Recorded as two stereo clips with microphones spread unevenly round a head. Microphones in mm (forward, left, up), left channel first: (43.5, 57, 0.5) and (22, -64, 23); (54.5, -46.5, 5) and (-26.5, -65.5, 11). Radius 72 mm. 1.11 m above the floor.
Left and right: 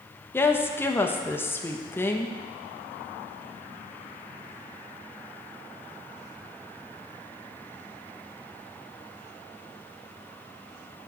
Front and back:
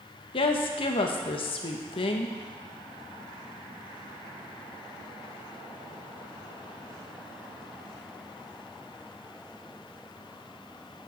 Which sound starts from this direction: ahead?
A woman speaking, at 0.3 s.